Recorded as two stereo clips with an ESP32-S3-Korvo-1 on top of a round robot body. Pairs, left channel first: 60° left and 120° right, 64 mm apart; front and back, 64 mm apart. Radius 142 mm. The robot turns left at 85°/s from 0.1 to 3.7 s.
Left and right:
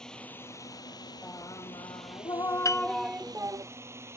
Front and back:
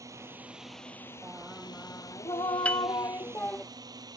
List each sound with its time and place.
0.0 s a drone: 140° left; by 4.2 s 165° right
1.2 s singing: 120° left; by 3.6 s 85° right
2.6 s a piano: 65° left; by 2.9 s 50° left